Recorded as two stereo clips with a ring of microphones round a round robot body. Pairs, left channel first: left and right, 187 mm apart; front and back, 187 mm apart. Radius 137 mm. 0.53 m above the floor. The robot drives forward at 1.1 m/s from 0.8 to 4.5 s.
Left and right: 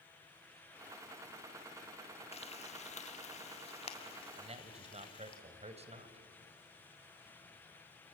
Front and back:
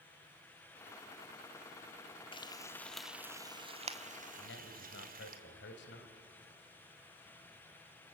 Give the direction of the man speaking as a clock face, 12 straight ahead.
1 o'clock.